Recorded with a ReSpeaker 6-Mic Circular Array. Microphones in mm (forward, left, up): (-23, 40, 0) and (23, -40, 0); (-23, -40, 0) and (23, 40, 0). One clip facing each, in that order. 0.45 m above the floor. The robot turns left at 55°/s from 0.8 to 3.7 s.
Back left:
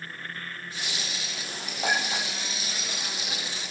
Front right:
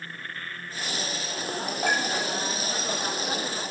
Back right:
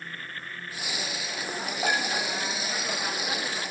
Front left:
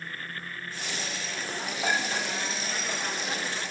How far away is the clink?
About 6.5 m.